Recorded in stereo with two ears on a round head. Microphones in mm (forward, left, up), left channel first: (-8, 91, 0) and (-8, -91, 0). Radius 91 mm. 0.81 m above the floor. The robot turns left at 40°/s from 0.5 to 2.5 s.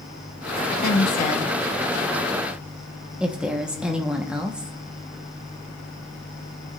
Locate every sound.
0.8 s a woman speaking: 50° left (ahead or behind), 1.2 m; by 4.7 s 5° right (ahead or behind), 1.2 m